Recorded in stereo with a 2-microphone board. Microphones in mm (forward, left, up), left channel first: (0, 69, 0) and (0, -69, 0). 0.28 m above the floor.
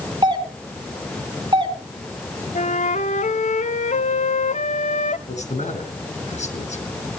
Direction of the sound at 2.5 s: 60° left (ahead or behind).